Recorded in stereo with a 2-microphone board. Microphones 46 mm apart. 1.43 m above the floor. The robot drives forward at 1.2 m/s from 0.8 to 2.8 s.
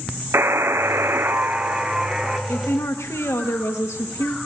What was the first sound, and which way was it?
A buzzer, 65° right (ahead or behind).